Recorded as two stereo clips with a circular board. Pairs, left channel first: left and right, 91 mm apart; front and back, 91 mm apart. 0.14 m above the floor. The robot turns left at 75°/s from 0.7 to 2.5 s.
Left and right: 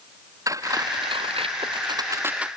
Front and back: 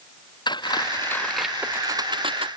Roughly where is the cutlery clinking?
Ahead right.